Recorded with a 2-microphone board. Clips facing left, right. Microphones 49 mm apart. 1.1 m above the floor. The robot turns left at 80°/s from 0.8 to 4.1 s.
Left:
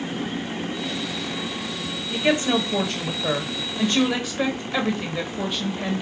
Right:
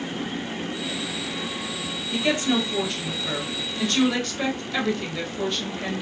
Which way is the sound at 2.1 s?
170° left.